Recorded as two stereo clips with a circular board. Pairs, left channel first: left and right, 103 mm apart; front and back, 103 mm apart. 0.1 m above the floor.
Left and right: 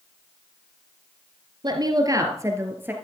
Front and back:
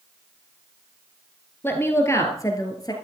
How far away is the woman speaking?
About 2.5 m.